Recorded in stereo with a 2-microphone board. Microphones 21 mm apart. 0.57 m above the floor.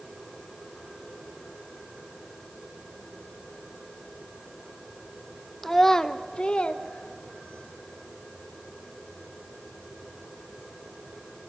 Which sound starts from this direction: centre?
A child speaking, at 5.6 s.